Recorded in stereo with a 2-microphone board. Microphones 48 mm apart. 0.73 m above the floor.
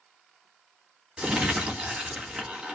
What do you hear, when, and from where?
1.2 s crumpling: 15° right (ahead or behind), 1.7 m